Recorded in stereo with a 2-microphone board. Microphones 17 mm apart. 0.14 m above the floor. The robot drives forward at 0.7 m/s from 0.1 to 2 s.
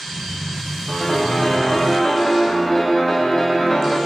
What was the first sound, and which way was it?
A piano, 40° left (ahead or behind).